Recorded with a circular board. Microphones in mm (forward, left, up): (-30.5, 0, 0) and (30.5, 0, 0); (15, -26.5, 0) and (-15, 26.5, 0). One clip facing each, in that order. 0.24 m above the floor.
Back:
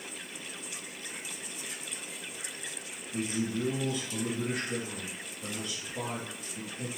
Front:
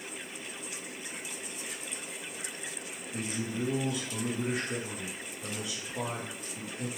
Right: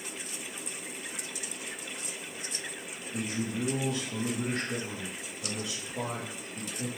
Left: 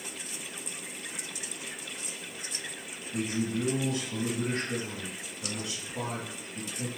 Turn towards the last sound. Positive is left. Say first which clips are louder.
# back 3 dB, left 3 dB
turn(degrees=80)